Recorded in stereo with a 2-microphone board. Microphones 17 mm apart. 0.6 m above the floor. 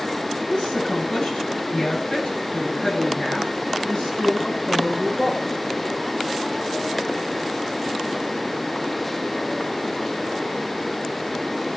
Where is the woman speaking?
75° left (ahead or behind), 9 m; by 5.4 s 55° left (ahead or behind), 14.5 m.